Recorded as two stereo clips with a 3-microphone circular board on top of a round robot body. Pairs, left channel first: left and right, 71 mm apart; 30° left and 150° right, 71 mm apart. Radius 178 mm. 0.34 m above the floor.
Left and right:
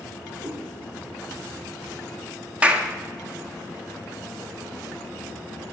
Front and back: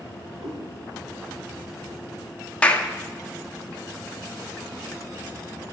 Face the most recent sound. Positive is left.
turn(degrees=-30)